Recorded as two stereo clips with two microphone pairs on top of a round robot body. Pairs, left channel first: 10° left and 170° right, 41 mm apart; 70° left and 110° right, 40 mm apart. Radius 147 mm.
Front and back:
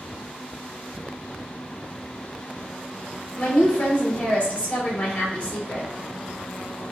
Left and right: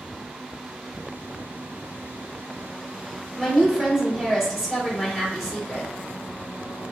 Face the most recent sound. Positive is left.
turn(degrees=-15)